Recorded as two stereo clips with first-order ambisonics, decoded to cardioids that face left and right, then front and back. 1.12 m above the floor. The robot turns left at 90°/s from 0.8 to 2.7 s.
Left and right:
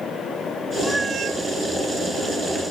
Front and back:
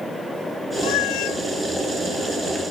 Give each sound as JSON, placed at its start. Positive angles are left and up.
{"t": 0.8, "sound": "a cat meowing", "azimuth_deg": 10}